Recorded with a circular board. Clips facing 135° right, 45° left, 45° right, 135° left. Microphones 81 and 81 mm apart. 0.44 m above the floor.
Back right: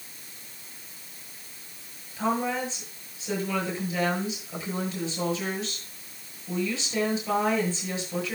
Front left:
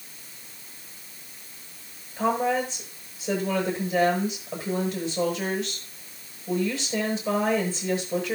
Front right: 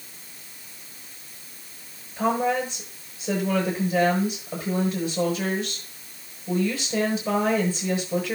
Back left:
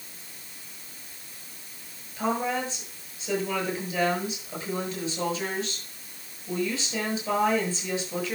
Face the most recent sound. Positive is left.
turn(degrees=-5)